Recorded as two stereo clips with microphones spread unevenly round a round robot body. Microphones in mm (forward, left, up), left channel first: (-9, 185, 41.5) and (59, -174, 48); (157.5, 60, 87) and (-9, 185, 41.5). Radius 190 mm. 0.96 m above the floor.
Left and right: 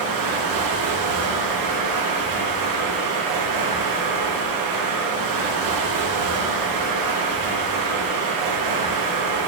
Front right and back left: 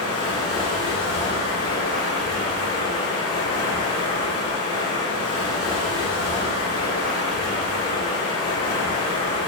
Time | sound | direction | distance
0.0 | running water | 50° right | 1.5 m